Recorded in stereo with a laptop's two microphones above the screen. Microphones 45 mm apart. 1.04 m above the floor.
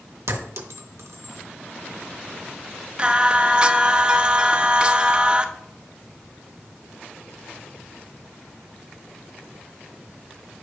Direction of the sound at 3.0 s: 20° right (ahead or behind).